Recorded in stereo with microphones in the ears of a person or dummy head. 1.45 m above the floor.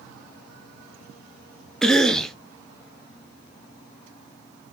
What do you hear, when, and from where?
1.8 s a cough: 5° left (ahead or behind), 0.6 m